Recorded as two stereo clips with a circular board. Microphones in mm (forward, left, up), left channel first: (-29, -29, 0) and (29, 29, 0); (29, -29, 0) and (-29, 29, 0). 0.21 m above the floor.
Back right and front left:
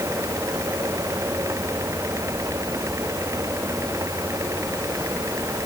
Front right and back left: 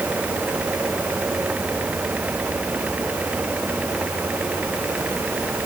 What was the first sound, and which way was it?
Only background noise.